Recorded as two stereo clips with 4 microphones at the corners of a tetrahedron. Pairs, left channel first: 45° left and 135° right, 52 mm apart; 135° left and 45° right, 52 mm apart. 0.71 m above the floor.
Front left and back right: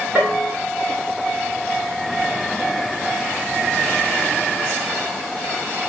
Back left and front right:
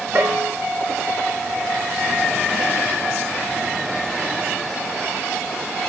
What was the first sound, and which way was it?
A bell, 85° right.